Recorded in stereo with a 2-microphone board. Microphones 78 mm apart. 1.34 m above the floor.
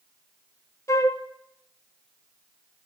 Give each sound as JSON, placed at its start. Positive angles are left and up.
{"t": 0.9, "sound": "a flute", "side_deg": 40, "distance_m": 1.2}